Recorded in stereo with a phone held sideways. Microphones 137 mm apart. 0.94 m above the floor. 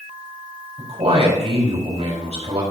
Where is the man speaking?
50° right (ahead or behind), 4.5 m.